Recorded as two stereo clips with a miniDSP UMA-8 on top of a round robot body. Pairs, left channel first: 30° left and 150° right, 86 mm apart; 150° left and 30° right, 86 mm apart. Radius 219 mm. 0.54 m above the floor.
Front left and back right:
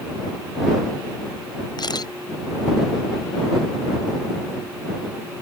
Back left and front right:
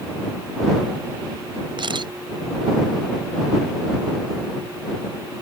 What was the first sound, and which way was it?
A camera shutter, 5° right.